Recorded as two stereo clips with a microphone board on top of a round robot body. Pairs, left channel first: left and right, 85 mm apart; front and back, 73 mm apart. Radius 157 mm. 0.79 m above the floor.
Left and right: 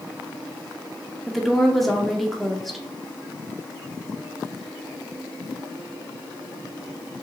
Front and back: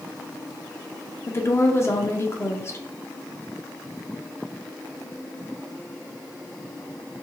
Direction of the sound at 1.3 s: Straight ahead.